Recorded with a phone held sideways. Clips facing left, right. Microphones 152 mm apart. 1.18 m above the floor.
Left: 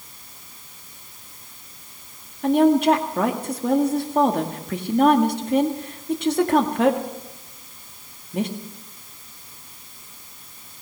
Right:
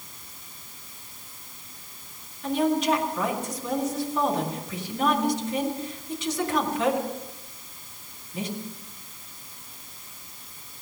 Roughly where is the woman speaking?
Left.